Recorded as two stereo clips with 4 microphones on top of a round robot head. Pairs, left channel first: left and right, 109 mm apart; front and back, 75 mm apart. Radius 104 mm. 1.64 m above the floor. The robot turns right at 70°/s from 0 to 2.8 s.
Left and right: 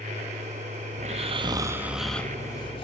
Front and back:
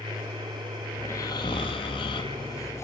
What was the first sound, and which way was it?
Snoring, 75° right.